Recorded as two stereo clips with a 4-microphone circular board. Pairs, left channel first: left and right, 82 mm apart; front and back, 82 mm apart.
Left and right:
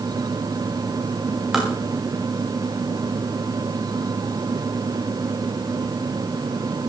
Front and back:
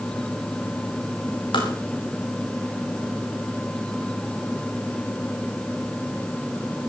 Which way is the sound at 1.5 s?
5° right.